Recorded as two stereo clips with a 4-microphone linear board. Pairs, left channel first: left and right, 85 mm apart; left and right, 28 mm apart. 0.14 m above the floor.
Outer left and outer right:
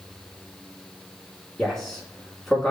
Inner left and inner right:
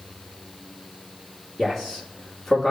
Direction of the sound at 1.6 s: 5° left (ahead or behind).